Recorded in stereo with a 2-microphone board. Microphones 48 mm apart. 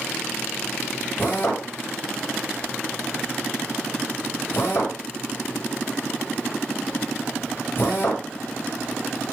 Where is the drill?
40° left (ahead or behind), 6 m.